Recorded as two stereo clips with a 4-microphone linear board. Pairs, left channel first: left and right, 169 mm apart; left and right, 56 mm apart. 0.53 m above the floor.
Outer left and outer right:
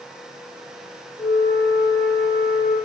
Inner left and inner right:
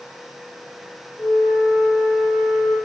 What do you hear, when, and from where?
1.2 s a flute: 85° left, 5.5 m